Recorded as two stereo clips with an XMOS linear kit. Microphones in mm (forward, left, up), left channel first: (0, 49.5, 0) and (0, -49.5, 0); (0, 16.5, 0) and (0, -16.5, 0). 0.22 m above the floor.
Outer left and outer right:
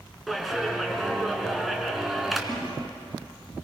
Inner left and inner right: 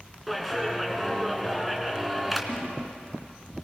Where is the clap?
Centre (ahead or behind), 2.5 m.